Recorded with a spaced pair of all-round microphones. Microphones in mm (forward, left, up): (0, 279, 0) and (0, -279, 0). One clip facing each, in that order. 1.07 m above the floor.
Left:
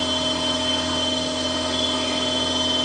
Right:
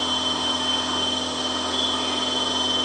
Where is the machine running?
50° left (ahead or behind), 1.0 m.